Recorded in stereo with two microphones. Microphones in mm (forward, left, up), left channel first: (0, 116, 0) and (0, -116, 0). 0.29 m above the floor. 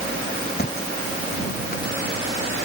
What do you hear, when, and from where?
0.6 s a thud: 40° left (ahead or behind)